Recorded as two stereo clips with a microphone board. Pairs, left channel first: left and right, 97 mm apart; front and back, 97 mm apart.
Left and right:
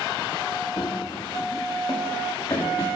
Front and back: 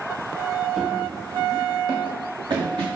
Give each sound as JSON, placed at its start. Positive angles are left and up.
{"t": 0.8, "sound": "running footsteps", "azimuth_deg": 95, "distance_m": 0.6}